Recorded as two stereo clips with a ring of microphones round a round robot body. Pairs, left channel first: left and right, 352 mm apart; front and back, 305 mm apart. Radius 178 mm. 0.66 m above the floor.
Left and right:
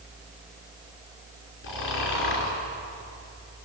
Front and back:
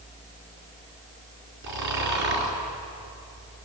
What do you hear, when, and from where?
1.6 s snoring: 150° left, 4.5 m